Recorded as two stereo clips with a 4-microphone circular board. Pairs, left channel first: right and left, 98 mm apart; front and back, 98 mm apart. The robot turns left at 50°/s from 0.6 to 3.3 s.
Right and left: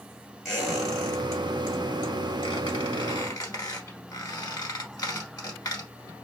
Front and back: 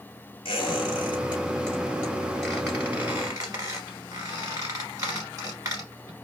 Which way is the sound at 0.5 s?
Straight ahead.